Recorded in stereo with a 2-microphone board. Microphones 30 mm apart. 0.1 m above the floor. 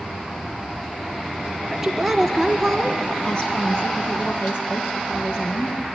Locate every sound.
1.7 s a woman speaking: 10° right (ahead or behind), 1.5 m; by 5.8 s 65° left (ahead or behind), 3.5 m